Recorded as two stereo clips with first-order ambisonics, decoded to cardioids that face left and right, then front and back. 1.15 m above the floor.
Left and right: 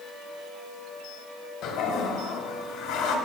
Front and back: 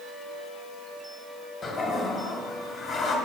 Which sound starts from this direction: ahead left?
A toilet flushing, at 1.6 s.